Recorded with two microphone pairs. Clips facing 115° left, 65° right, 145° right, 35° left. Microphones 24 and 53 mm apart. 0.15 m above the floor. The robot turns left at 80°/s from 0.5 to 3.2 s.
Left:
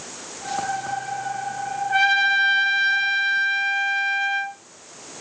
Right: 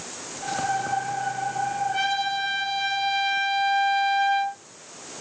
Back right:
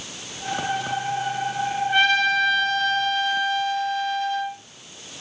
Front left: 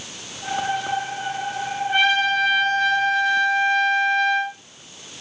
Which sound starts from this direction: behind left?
A trumpet, at 1.9 s.